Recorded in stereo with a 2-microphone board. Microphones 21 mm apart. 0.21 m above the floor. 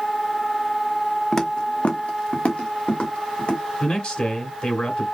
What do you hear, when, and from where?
1.3 s footsteps: 20° left (ahead or behind), 0.9 m; by 3.6 s 55° left (ahead or behind), 2.5 m
3.8 s a man speaking: 45° left (ahead or behind), 2 m